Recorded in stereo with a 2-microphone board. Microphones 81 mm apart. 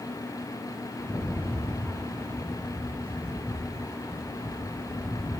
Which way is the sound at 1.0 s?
30° left (ahead or behind).